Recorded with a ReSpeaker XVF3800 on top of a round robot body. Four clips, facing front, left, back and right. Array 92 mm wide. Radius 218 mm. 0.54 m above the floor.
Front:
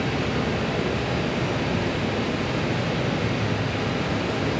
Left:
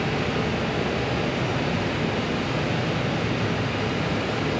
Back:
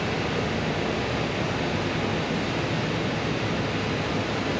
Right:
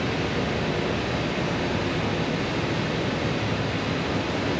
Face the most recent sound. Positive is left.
turn(degrees=55)